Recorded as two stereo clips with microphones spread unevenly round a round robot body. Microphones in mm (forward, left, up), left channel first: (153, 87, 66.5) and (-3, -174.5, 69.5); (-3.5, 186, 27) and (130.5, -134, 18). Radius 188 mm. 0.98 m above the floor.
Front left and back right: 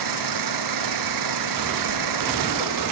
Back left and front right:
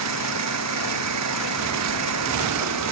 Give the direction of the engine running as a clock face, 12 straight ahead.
4 o'clock.